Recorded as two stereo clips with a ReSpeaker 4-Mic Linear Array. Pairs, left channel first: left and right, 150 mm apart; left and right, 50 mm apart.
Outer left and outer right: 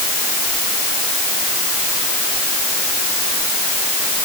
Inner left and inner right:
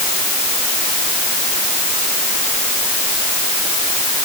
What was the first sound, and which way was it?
Only background noise.